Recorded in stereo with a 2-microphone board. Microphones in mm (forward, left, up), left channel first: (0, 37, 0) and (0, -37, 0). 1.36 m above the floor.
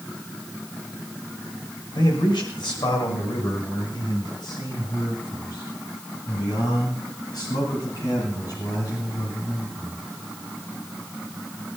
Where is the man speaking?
85° left, 6 m; by 9.9 s 50° left (ahead or behind), 11.5 m.